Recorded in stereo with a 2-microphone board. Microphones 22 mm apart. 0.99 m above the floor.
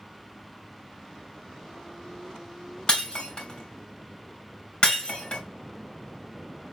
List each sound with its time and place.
2.9 s breaking glass: 45° left (ahead or behind), 2.5 m